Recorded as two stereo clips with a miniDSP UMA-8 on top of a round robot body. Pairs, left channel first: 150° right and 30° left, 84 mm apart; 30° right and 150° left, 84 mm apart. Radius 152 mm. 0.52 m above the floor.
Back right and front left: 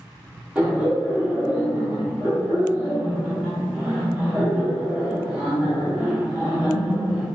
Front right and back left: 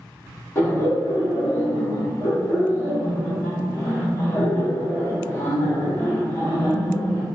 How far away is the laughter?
About 1.5 m.